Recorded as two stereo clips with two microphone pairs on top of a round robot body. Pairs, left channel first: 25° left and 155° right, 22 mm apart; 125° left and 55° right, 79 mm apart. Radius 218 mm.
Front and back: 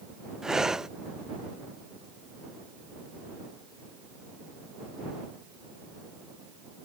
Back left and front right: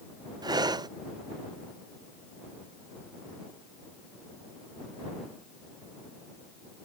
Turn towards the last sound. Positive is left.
turn(degrees=-90)